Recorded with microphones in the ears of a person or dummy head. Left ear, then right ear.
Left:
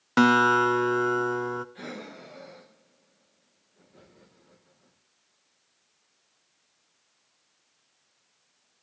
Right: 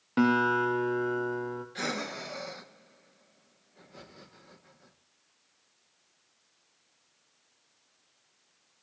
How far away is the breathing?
About 1.0 m.